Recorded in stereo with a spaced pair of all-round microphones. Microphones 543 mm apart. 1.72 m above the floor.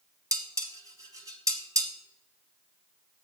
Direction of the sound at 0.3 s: 5° right (ahead or behind).